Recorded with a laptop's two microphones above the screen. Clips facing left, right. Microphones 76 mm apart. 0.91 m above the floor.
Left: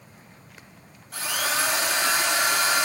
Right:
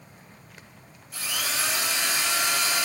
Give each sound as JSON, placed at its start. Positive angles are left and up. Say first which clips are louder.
{"t": 1.1, "sound": "a drill", "louder": "left 5 dB", "side_deg": 60, "distance_m": 2.0}